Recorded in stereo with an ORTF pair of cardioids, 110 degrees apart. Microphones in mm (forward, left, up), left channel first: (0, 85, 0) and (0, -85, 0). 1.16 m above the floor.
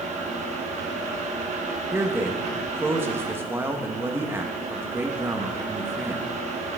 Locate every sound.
0.0 s a fan: 45° right, 1.3 m
1.9 s a man speaking: 15° right, 1.2 m